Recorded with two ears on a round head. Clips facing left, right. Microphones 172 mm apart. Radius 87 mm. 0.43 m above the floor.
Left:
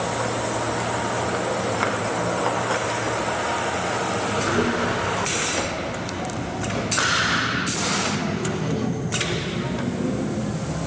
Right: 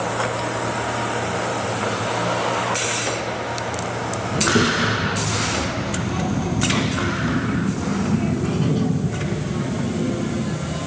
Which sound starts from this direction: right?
A child speaking, at 4.3 s.